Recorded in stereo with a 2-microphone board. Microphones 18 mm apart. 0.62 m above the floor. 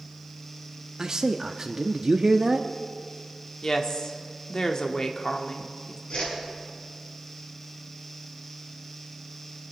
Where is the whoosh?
60° left (ahead or behind), 5.5 m.